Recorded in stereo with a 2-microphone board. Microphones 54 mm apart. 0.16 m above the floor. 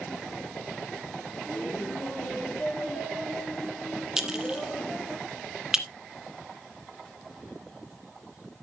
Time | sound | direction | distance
1.5 | laughter | 35° left (ahead or behind) | 4.5 m
4.2 | a clink | 10° right (ahead or behind) | 1.2 m